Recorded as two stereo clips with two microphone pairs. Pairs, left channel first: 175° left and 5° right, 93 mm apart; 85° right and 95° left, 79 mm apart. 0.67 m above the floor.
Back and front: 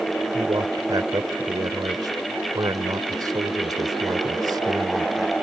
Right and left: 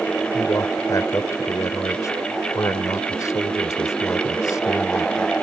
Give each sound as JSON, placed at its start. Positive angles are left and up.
{"t": 0.3, "sound": "a man speaking", "azimuth_deg": -45}